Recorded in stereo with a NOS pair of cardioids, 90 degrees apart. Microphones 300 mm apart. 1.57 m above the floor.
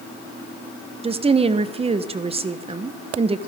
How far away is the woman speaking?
About 1.1 m.